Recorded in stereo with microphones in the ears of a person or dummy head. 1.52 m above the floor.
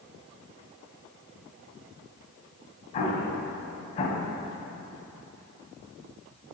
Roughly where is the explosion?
Left.